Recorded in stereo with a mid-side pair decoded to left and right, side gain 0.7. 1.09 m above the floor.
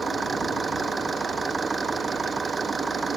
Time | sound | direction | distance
0.0 | an engine running | 20° right | ?